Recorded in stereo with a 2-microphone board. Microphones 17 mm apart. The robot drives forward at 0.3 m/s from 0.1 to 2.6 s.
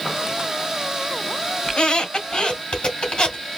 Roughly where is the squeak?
Left.